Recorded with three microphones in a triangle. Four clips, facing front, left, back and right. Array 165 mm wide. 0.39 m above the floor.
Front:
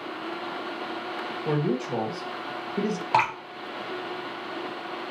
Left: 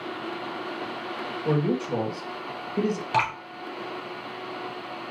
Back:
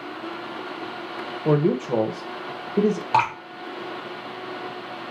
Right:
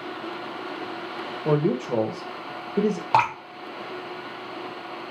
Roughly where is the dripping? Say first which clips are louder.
Right 5 dB, back 1 dB; right.